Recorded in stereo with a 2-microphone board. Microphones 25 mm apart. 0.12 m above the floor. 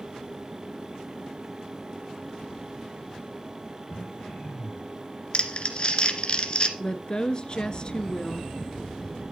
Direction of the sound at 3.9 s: 65° left (ahead or behind).